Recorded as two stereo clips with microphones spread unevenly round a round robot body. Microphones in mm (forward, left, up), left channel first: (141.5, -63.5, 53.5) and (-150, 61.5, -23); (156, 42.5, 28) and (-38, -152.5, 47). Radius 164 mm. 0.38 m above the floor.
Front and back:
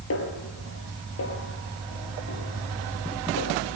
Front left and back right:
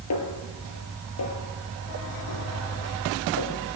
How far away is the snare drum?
About 4.5 m.